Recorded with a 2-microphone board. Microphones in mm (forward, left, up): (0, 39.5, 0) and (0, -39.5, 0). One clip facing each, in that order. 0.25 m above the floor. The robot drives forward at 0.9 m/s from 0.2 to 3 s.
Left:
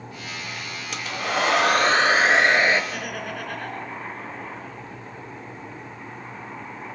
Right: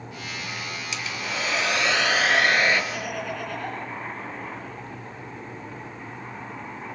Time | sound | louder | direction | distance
0.9 | a hair dryer | left 7 dB | 55° left (ahead or behind) | 0.7 m
2.9 | laughter | right 1 dB | 55° left (ahead or behind) | 2.5 m